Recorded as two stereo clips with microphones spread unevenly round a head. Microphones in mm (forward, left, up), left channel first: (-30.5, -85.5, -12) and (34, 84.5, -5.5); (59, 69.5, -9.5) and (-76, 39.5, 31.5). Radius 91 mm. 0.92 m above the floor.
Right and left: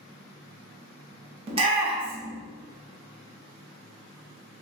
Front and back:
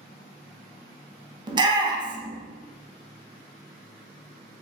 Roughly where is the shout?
Behind left.